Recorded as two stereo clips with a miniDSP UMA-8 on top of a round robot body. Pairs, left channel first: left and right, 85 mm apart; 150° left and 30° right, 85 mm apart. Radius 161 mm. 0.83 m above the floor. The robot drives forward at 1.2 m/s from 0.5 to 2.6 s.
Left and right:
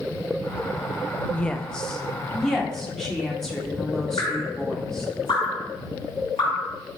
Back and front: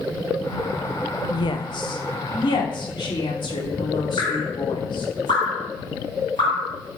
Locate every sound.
1.3 s a woman speaking: 165° left, 0.9 m; by 5.1 s 175° left, 2.5 m
4.2 s dripping: 120° left, 2 m